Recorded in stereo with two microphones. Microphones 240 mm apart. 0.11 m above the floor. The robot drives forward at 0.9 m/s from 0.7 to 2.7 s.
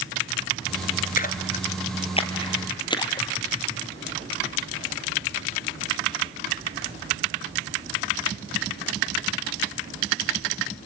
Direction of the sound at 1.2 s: 35° left (ahead or behind).